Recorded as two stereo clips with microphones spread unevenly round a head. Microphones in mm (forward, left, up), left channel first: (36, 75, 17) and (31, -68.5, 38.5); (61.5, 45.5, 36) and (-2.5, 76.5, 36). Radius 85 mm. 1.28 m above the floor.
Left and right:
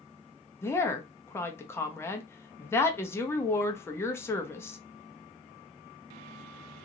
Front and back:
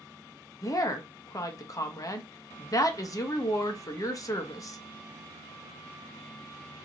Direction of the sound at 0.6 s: 15° left.